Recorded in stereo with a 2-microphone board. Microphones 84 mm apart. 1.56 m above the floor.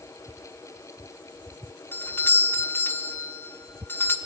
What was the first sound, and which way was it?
A doorbell, 25° left (ahead or behind).